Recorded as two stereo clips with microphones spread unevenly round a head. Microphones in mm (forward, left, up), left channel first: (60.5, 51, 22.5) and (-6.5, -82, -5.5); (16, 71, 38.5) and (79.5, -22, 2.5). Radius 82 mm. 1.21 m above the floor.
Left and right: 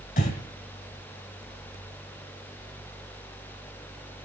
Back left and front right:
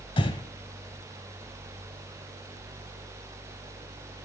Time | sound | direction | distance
0.2 | breathing | 95° left | 2 m